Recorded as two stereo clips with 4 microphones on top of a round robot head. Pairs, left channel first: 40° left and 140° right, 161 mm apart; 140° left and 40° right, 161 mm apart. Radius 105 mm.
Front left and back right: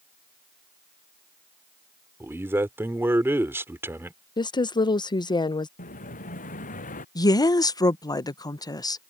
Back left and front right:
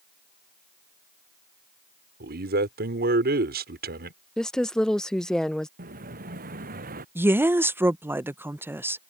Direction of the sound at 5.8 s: 5° right.